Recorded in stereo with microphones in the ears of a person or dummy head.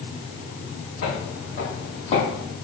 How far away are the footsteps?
About 3 m.